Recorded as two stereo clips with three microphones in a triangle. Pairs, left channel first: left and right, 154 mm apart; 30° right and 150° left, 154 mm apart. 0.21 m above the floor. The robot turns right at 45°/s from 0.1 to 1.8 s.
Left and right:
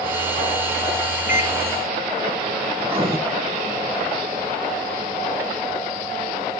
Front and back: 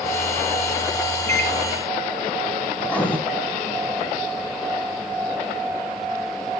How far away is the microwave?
About 1.7 m.